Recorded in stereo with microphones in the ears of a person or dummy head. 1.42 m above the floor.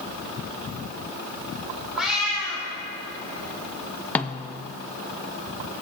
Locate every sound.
2.0 s a cat meowing: centre (ahead or behind), 2.5 m
4.2 s a snare drum: 10° left (ahead or behind), 0.5 m